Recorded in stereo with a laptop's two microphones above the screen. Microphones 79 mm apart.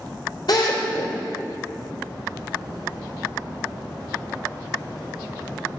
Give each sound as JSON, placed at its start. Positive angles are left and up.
{"t": 0.5, "sound": "a drill", "side_deg": 60, "distance_m": 3.5}